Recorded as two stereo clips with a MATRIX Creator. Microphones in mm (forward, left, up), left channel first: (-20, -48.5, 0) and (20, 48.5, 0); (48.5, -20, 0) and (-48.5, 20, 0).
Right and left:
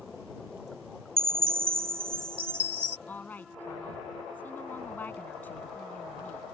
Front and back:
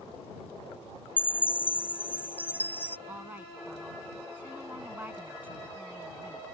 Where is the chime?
50° left.